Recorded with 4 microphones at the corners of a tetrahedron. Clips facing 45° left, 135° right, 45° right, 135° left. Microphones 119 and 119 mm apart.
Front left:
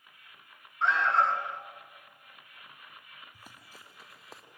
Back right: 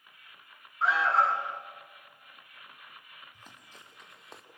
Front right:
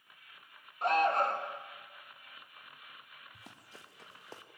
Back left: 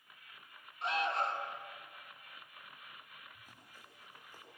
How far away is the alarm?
About 1.8 m.